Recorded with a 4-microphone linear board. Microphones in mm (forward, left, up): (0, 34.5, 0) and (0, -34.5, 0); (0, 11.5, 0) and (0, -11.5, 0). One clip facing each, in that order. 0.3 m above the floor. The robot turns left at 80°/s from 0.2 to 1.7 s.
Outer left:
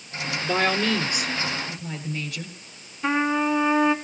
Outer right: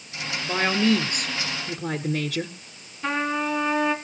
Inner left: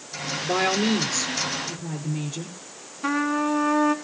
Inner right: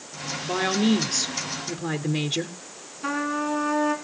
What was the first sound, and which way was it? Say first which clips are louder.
A woman speaking: outer right 1 dB, even; 10° left.